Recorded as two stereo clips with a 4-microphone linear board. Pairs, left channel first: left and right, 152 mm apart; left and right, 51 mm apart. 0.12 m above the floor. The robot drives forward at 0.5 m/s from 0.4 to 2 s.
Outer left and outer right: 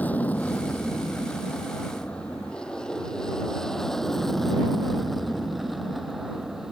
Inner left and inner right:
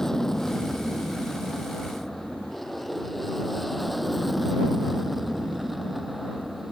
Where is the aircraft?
10° left (ahead or behind); by 6.7 s centre (ahead or behind).